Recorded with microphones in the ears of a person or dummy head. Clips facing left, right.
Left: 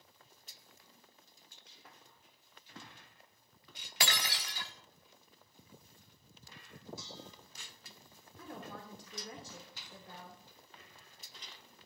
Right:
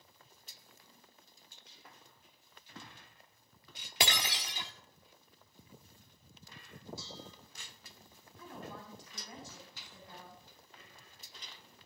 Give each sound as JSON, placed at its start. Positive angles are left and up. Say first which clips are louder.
{"t": 4.0, "sound": "breaking glass", "louder": "right 3 dB", "side_deg": -20, "distance_m": 1.7}
{"t": 7.0, "sound": "dishes clattering", "louder": "right 1 dB", "side_deg": -30, "distance_m": 3.0}
{"t": 8.4, "sound": "a woman speaking", "louder": "even", "side_deg": 55, "distance_m": 3.5}